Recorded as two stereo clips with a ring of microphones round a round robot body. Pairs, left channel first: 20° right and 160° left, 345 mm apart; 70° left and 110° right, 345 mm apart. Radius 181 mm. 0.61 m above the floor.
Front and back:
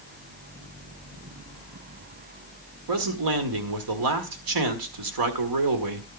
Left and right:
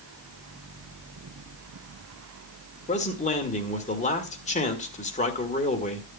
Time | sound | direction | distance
2.9 | a man speaking | 135° left | 1.8 m